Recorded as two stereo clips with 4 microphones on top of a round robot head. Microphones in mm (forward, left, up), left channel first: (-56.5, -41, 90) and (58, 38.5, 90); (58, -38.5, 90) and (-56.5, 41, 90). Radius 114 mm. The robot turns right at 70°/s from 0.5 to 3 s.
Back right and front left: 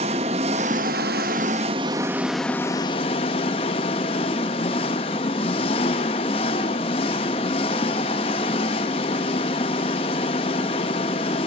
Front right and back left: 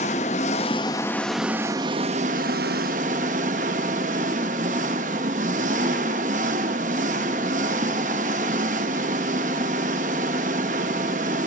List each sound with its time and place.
0.0 s an engine running: 5° right, 0.8 m; by 11.5 s 170° left, 0.8 m